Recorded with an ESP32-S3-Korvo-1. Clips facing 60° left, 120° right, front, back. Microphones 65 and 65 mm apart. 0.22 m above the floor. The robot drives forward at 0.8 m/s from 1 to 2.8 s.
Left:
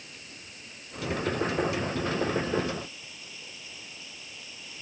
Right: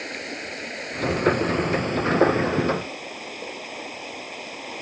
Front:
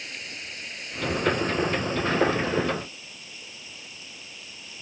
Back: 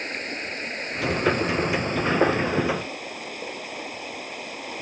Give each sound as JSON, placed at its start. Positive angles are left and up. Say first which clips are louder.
{"t": 0.0, "sound": "running water", "louder": "right 16 dB, back 8 dB", "azimuth_deg": -135}